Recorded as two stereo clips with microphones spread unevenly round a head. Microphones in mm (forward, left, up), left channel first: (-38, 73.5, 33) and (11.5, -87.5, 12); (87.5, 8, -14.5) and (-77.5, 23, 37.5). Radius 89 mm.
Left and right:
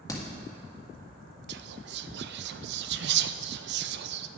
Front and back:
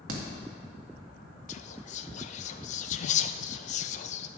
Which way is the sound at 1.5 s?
50° right.